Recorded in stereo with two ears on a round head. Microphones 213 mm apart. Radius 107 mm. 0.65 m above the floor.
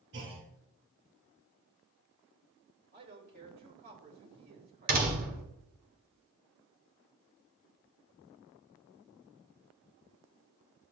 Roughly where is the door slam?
Right.